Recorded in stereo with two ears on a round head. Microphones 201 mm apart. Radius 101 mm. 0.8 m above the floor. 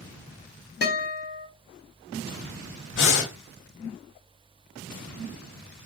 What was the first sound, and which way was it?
A guitar, 45° left (ahead or behind).